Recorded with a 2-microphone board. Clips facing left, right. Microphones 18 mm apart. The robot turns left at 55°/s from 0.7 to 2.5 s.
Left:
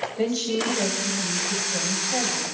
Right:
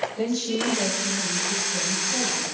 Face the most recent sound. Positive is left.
turn(degrees=65)